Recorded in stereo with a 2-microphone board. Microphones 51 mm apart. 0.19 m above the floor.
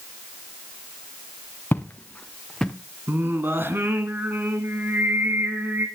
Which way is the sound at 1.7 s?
35° left (ahead or behind).